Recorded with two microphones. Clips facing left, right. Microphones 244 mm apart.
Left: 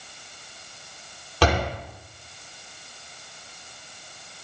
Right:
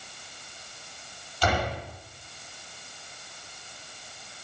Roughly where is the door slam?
Left.